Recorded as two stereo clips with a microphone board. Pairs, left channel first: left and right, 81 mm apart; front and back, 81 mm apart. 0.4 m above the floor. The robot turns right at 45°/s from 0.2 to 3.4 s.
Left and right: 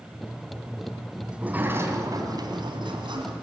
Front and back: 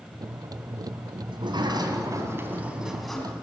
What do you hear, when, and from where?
1.3 s a sliding door: 170° right, 2.5 m; by 3.3 s 75° right, 2.5 m